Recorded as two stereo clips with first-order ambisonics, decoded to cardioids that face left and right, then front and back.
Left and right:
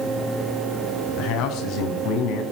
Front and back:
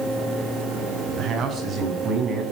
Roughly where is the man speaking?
Behind left.